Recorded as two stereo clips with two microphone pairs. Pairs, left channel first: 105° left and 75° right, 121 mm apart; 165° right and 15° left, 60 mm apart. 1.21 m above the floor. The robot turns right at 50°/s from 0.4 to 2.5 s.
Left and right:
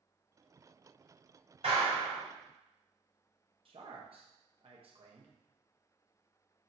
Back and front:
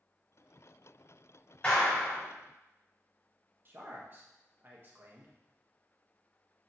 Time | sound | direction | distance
1.6 | a clap | 100° right | 3.5 m
3.6 | a man speaking | 35° right | 1.4 m